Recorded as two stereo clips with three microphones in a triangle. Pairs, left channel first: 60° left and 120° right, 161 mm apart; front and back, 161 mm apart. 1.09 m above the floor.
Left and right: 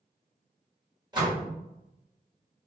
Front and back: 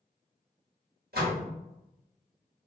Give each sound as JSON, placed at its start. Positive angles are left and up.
{"t": 1.1, "sound": "a door slam", "azimuth_deg": 180, "distance_m": 1.3}